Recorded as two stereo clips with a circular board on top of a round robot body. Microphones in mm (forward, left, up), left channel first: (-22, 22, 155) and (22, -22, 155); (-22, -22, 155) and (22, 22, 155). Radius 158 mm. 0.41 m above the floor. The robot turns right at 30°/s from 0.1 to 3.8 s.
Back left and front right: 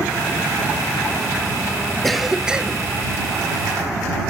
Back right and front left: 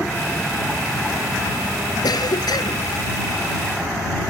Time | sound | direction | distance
2.0 | a cough | 135° right | ?